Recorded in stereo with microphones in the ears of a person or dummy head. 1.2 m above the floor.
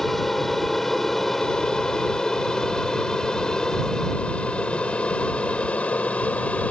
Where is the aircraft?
5° left (ahead or behind); by 6.7 s 10° left (ahead or behind).